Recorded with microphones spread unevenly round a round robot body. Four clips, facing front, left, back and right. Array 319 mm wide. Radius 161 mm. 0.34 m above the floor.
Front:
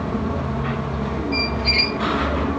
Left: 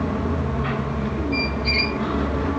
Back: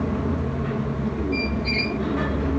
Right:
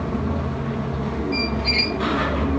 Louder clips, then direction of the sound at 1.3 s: Even, front 2 dB; 40° right.